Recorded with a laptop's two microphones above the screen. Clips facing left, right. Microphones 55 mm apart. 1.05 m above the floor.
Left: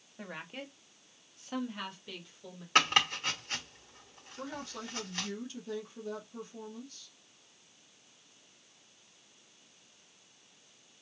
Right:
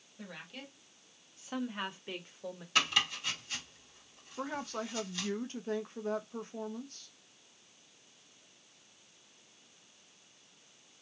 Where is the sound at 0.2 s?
40° left (ahead or behind), 1.5 m; by 2.6 s 45° right (ahead or behind), 1.4 m.